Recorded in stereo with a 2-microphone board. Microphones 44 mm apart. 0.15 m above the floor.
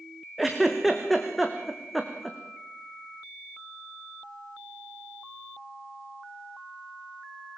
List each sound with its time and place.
0.4 s a giggle: centre (ahead or behind), 3 m